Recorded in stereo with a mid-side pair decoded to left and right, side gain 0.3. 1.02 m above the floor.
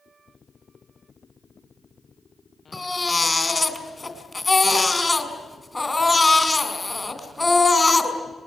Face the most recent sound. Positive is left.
turn(degrees=30)